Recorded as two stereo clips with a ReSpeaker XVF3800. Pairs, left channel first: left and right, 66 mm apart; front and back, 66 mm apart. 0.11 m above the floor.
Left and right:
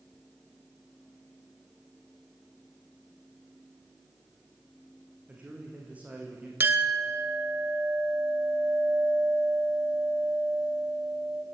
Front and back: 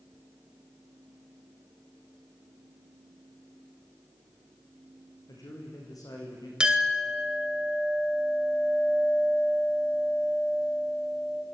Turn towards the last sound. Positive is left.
turn(degrees=-115)